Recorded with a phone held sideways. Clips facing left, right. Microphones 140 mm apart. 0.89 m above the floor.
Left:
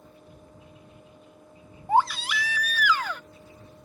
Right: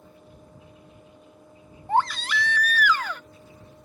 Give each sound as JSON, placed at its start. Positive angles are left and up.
{"t": 0.0, "sound": "a fan", "side_deg": -5}
{"t": 1.9, "sound": "a baby crying", "side_deg": 10}